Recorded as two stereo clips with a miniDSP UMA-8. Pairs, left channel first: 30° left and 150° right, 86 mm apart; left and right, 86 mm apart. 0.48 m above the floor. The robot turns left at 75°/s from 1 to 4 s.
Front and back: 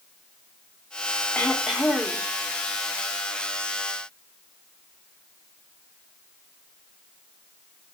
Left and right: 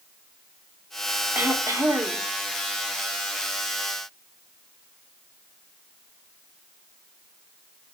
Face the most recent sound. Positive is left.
turn(degrees=125)